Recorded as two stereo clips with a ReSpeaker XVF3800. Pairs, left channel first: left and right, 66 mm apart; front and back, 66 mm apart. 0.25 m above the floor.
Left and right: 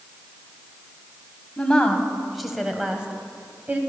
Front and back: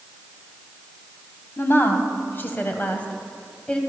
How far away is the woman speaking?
About 1.7 m.